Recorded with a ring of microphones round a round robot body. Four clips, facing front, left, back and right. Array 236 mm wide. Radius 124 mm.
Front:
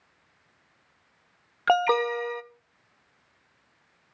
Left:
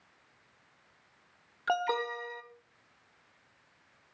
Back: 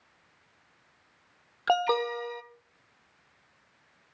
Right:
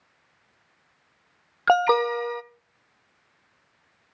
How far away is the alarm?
About 0.7 m.